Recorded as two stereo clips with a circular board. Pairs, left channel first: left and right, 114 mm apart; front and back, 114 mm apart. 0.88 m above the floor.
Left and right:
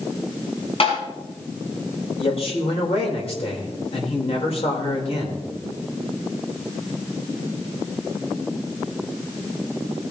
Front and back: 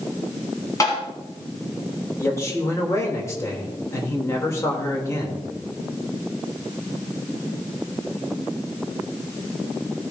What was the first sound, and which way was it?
Tapping, 60° left.